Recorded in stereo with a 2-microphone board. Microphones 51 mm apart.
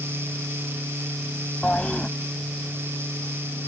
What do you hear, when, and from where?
1.6 s a toilet flushing: 20° left (ahead or behind)